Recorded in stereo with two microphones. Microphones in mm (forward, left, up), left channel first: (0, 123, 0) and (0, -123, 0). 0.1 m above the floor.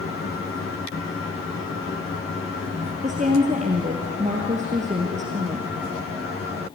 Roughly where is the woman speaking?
Right.